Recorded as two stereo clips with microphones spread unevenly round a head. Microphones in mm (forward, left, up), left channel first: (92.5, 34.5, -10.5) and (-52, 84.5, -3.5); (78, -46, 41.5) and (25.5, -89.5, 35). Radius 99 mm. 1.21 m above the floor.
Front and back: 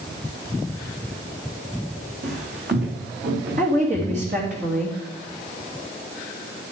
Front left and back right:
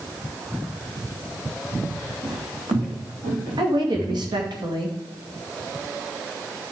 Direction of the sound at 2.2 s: 160° right.